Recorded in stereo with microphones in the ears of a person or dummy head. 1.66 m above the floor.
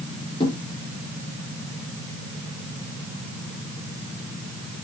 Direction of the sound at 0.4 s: 30° left (ahead or behind).